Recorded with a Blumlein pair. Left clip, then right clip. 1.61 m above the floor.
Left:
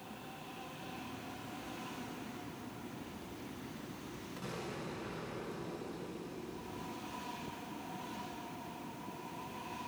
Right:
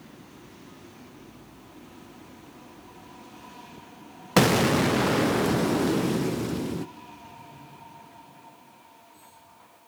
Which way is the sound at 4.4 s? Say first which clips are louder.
Right 24 dB; 45° right.